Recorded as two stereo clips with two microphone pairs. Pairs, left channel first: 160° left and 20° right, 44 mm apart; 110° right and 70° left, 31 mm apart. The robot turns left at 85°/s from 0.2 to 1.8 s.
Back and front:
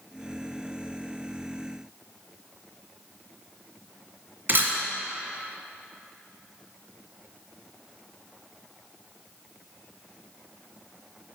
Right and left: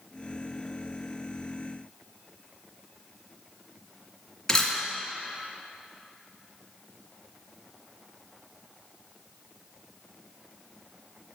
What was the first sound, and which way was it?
A camera shutter, 40° right.